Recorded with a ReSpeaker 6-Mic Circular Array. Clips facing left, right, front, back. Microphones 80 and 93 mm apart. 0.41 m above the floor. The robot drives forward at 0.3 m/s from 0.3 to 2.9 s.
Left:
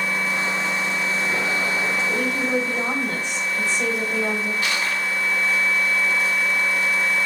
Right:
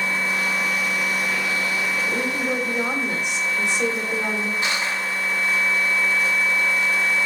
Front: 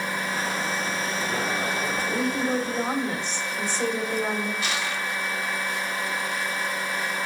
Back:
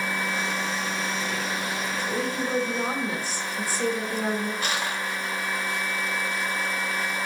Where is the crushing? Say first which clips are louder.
Even, even; 150° right, 0.6 m.